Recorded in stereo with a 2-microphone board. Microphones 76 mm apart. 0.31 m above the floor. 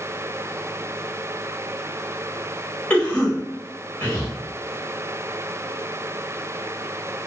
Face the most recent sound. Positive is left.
turn(degrees=20)  # may be behind; listen again after turning